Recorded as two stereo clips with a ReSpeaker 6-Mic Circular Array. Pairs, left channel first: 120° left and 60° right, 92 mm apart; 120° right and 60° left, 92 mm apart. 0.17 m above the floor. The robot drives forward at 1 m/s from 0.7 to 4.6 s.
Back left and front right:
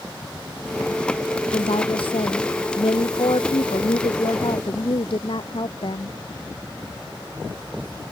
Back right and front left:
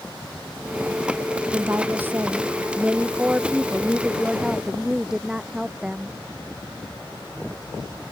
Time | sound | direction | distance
1.5 | a woman speaking | 125° left | ?